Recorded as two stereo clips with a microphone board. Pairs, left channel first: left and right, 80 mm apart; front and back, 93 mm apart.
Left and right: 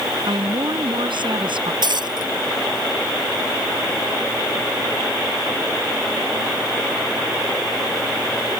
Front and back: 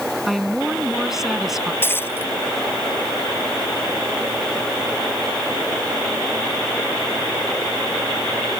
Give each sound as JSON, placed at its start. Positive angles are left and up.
{"t": 0.3, "sound": "a woman speaking", "azimuth_deg": -90}
{"t": 1.8, "sound": "breaking glass", "azimuth_deg": -65}